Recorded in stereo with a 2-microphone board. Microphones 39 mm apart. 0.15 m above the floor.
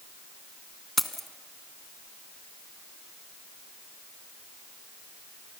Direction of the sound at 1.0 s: 5° left (ahead or behind).